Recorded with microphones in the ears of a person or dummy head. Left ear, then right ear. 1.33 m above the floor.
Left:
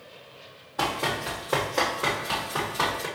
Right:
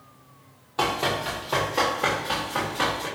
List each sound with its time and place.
0.8 s running footsteps: 20° right (ahead or behind), 1.4 m; by 3.1 s 15° left (ahead or behind), 1.8 m